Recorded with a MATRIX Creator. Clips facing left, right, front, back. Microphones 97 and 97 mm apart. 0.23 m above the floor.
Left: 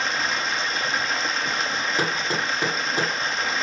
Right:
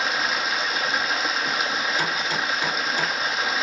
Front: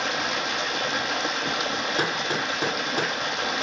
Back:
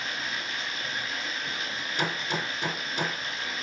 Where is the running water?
5° right, 1.1 m.